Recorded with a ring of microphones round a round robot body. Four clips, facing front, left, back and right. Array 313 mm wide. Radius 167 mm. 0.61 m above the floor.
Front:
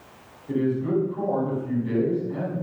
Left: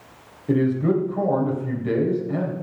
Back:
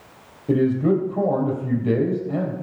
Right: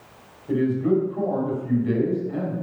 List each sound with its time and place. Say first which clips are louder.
0.5 s a man speaking: left 1 dB, back 5 dB; 150° left, 3.5 m